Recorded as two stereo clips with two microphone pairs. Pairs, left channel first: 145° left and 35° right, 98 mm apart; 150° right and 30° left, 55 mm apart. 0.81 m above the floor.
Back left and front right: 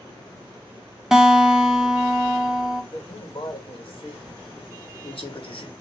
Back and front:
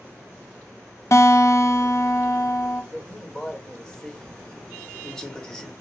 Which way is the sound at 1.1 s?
125° right.